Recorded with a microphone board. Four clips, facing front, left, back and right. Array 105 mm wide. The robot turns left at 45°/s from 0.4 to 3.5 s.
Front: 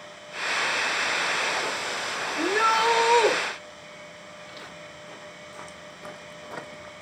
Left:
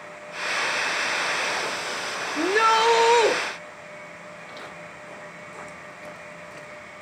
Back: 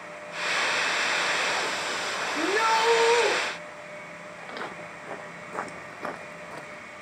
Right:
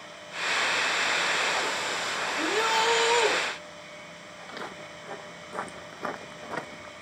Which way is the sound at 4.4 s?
170° right.